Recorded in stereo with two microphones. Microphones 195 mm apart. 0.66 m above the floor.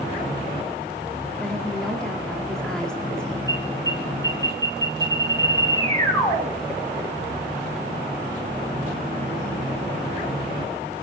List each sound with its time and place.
1.4 s a woman speaking: 5° left (ahead or behind), 1.6 m
3.5 s an alarm: 20° left (ahead or behind), 6 m